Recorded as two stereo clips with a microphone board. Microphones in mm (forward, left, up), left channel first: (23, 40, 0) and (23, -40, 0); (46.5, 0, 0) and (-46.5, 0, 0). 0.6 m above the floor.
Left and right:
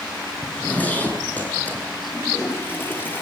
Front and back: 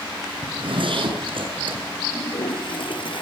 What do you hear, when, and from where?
0.4 s a zipper: 160° left, 9 m
2.1 s a toilet flushing: 25° left, 7.5 m